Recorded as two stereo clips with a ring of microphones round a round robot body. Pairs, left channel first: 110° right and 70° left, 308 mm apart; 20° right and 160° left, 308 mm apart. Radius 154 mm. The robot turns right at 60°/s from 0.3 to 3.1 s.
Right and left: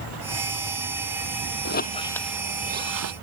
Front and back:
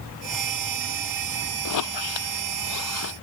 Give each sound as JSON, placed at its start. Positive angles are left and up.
{"t": 1.6, "sound": "a squeak", "azimuth_deg": -60}